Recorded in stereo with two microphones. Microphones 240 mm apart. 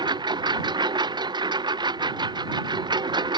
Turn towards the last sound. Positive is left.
turn(degrees=-20)  # may be behind; listen again after turning